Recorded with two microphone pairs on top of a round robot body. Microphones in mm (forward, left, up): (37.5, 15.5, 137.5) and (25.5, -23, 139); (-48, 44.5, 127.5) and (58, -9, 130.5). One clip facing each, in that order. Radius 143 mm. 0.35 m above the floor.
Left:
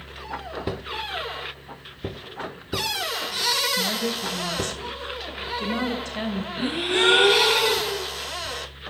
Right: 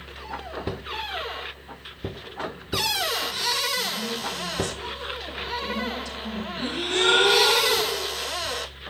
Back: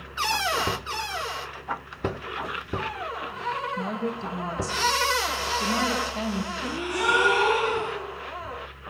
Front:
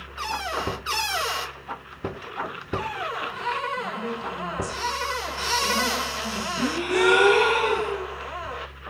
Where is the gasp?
Straight ahead, 6.5 m.